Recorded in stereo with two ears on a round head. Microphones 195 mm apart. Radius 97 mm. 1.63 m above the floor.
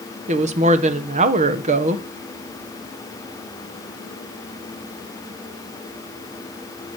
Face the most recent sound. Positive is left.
turn(degrees=-35)  # may be behind; listen again after turning